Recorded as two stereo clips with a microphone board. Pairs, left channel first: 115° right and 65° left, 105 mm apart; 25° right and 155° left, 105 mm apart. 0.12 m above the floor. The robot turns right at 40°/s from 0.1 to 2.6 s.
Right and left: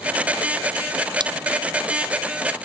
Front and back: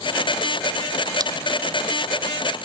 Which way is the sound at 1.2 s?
110° left.